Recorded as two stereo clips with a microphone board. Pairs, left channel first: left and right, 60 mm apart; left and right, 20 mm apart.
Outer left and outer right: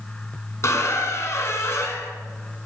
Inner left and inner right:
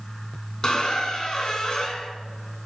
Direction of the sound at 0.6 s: 50° left (ahead or behind).